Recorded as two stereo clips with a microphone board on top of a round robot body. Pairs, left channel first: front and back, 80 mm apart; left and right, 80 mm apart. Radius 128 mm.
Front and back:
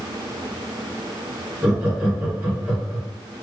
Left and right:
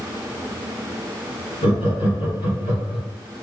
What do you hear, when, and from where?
1.6 s laughter: 110° left, 2.5 m